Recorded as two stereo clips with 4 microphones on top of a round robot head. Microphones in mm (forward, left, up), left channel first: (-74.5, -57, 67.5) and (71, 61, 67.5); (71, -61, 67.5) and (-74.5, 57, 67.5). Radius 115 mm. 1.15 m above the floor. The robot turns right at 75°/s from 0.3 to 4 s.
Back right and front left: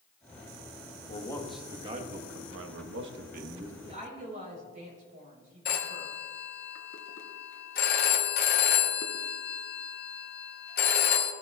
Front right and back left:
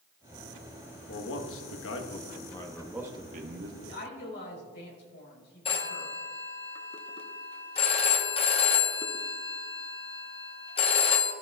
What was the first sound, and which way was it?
A man speaking, 85° right.